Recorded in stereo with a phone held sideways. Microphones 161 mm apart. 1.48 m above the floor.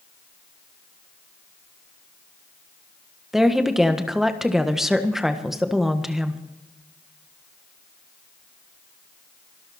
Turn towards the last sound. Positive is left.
turn(degrees=0)  # may be behind; listen again after turning